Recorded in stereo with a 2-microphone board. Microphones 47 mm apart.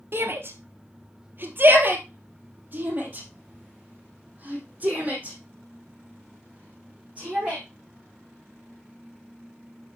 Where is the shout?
50° right (ahead or behind), 1.8 m; by 7.6 s 25° right (ahead or behind), 6 m.